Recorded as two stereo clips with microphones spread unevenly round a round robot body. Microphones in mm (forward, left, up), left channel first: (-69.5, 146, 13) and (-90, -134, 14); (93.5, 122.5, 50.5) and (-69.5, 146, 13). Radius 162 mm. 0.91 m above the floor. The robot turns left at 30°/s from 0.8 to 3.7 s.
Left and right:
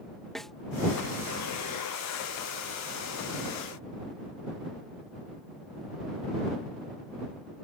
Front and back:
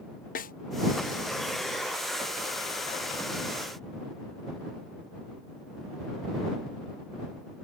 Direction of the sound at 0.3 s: Straight ahead.